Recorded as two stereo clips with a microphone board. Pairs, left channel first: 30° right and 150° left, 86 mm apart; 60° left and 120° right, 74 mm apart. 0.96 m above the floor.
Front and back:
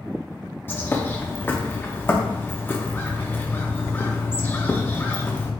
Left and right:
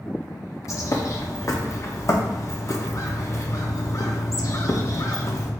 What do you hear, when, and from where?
0.7 s a bird: 30° left, 0.6 m